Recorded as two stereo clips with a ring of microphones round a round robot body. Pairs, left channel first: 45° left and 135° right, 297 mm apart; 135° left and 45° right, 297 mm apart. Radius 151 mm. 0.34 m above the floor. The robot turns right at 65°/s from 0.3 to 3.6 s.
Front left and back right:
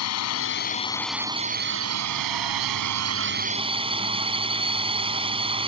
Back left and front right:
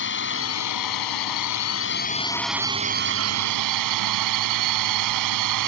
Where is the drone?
85° left; by 5.7 s 60° right.